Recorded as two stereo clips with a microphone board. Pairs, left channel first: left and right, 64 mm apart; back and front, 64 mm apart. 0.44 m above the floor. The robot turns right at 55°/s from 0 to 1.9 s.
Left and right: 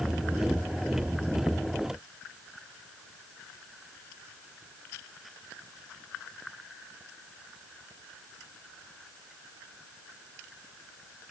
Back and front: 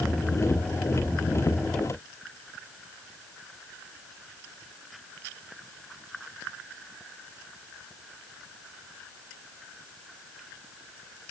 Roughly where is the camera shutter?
I don't hear a camera shutter.